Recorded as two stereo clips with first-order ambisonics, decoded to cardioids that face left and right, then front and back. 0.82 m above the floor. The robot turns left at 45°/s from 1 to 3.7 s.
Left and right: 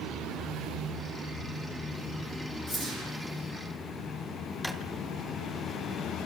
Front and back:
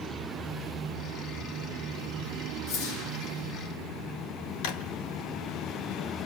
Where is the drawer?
5° right, 2 m.